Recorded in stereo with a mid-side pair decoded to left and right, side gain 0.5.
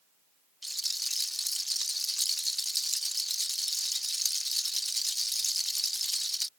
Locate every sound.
0.6 s a rattle: straight ahead